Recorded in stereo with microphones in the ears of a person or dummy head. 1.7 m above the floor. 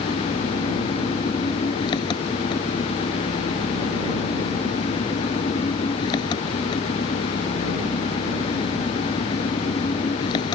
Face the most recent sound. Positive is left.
turn(degrees=25)  # may be behind; listen again after turning